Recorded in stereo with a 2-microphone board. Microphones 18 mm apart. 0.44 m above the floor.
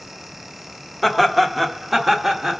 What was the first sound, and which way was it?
Laughter, 5° left (ahead or behind).